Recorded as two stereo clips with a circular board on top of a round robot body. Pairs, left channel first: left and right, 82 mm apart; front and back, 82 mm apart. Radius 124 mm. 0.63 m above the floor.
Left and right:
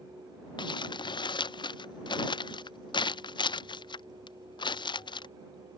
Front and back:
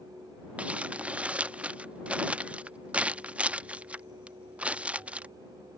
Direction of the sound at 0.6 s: 105° left.